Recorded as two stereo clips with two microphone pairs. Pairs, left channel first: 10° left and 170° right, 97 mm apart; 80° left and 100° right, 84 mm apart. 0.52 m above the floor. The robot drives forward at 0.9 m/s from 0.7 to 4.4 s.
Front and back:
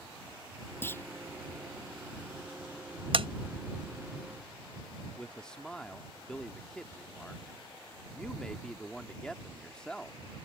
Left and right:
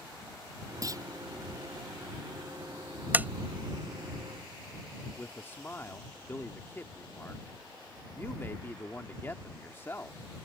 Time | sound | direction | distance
0.8 | a clunk | 55° right | ?
3.1 | tapping | 170° right | ?
5.2 | a man speaking | 80° left | ?